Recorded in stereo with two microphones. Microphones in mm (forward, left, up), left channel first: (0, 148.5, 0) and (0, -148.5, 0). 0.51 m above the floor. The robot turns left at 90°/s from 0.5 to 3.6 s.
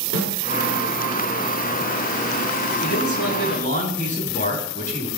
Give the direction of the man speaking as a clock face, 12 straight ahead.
9 o'clock.